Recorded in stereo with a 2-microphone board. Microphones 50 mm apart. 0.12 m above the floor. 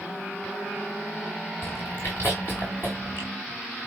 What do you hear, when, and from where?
1.6 s chewing: 50° left (ahead or behind), 4.5 m